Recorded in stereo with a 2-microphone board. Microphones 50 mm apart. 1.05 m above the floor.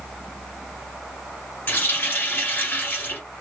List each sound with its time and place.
1.7 s a running tap: 45° left (ahead or behind), 2.0 m